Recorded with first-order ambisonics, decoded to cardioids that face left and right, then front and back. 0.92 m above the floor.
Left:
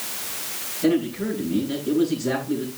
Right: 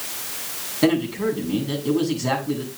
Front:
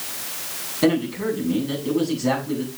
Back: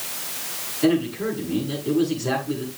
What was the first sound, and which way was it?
A man speaking, 55° right.